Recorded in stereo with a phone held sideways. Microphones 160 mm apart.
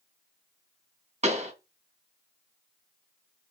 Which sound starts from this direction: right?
A pop, at 1.2 s.